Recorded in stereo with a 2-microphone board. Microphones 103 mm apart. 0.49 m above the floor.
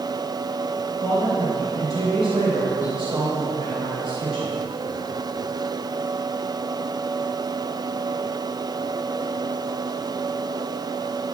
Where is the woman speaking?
65° right (ahead or behind), 2.5 m.